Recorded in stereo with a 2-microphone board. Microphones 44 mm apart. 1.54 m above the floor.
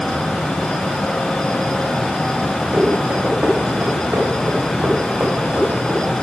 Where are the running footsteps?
60° right (ahead or behind), 5 m; by 6.1 s 75° right (ahead or behind), 6.5 m.